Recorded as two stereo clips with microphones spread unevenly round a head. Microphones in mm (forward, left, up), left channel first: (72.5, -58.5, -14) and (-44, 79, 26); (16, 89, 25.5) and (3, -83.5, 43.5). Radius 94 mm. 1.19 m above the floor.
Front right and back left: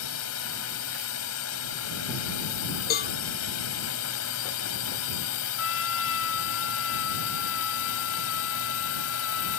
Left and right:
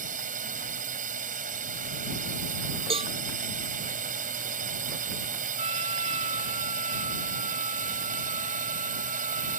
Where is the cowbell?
35° right.